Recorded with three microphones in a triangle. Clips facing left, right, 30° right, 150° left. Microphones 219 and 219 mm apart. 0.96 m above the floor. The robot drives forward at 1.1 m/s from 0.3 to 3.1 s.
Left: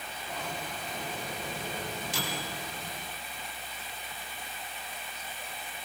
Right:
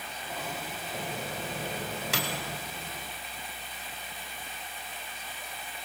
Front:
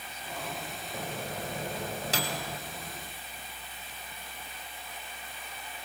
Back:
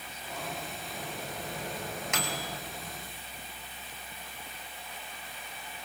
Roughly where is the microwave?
Right.